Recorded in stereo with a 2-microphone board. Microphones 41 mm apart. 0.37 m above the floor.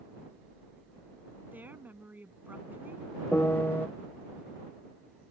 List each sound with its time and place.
1.5 s a woman speaking: 45° right (ahead or behind)
3.3 s a piano: 50° left (ahead or behind)